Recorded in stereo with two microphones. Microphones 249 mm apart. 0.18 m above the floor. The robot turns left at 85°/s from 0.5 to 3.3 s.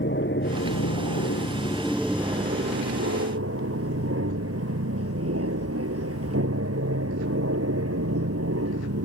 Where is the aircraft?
50° left (ahead or behind); by 9.1 s 70° right (ahead or behind).